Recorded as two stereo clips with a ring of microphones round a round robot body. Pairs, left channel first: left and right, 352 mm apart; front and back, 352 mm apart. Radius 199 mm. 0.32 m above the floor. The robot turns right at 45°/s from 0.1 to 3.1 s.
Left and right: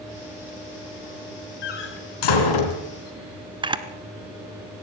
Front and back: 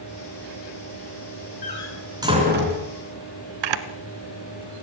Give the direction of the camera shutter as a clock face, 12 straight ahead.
6 o'clock.